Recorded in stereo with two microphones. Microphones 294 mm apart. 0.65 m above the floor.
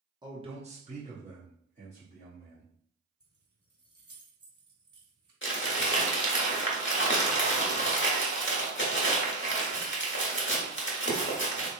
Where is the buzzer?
I don't hear a buzzer.